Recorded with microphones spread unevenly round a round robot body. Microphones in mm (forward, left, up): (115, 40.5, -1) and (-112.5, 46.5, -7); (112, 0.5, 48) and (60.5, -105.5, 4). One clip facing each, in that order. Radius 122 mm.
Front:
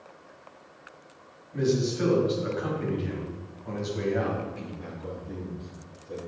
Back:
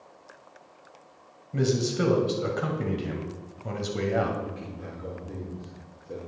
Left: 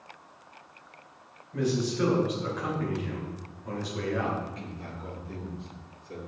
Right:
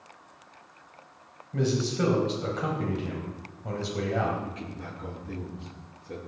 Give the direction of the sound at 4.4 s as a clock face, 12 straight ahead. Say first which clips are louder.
Even, right 2 dB; 3 o'clock.